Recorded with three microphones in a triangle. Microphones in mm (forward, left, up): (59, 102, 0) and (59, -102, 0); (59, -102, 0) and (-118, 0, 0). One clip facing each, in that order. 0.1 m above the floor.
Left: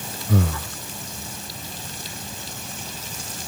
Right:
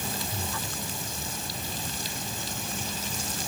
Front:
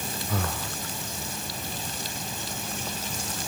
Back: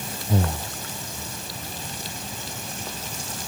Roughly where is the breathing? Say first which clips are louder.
Left 12 dB, back 7 dB; left.